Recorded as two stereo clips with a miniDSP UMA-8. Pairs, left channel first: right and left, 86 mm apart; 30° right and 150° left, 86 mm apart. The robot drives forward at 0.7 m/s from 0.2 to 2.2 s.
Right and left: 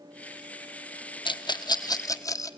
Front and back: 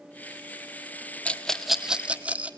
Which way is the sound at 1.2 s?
100° right.